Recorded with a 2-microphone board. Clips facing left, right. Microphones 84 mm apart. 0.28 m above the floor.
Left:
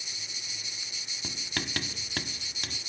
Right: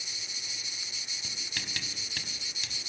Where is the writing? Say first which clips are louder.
Left 7 dB; 55° left (ahead or behind), 0.9 m.